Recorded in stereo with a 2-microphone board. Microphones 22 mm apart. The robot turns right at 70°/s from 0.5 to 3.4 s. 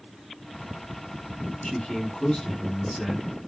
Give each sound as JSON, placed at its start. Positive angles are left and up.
{"t": 1.6, "sound": "a man speaking", "side_deg": 30, "distance_m": 1.3}